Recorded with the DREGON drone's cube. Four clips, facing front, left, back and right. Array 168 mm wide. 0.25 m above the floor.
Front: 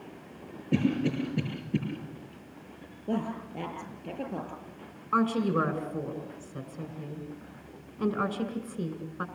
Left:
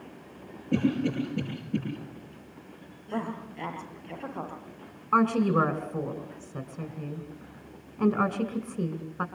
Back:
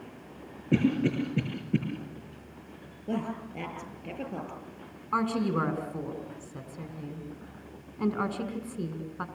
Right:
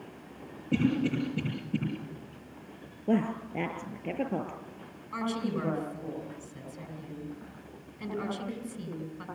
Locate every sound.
0.7 s a cough: 175° left, 5.5 m
3.1 s a woman speaking: 85° right, 6 m
5.1 s a woman speaking: 105° left, 2.5 m